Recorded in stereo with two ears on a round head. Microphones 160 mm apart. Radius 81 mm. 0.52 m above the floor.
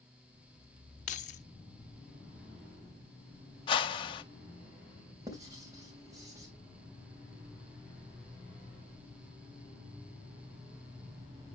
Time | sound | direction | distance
1.1 | keys jangling | 40° left (ahead or behind) | 0.6 m
3.7 | a whoosh | 25° left (ahead or behind) | 0.6 m
5.3 | writing | 20° right (ahead or behind) | 3 m